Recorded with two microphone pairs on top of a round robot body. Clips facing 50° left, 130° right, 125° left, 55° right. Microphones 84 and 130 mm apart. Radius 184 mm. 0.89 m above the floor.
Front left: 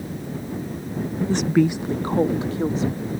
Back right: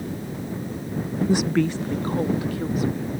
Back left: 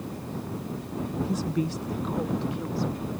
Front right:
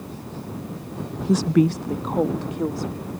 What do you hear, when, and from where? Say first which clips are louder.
1.3 s a woman speaking: front left 3 dB, front right 14 dB; 60° right; by 3.1 s 10° right